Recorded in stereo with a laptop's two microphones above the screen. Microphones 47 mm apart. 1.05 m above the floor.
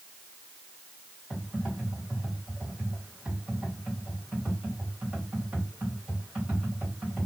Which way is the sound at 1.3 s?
25° right (ahead or behind).